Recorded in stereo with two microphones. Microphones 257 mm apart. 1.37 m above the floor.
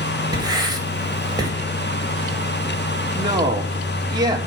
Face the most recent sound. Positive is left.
turn(degrees=-15)  # may be behind; listen again after turning